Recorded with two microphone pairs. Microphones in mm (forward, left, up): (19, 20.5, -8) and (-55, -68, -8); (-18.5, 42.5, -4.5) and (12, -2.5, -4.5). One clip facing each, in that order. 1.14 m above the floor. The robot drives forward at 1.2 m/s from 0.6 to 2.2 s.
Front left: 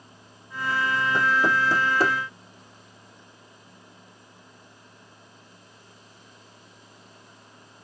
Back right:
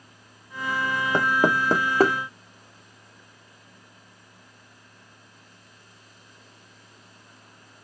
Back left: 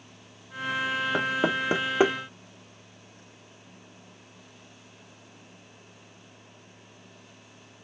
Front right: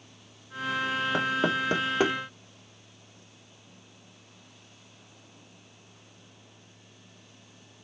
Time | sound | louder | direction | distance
1.1 | knocking | back right 2 dB, even | 155° right | 1.1 m